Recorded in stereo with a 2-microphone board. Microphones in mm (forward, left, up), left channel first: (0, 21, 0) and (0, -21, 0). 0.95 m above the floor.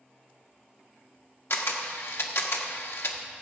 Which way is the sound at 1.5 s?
75° left (ahead or behind).